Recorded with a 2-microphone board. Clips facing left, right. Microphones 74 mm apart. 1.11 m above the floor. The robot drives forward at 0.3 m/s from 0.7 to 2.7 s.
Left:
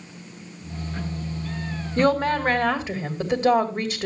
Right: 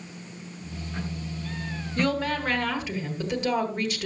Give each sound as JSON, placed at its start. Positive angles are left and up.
{"t": 2.0, "sound": "a woman speaking", "side_deg": 40, "distance_m": 1.5}